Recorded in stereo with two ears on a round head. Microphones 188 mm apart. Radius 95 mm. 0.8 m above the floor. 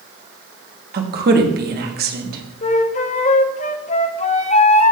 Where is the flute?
30° left (ahead or behind), 0.6 m.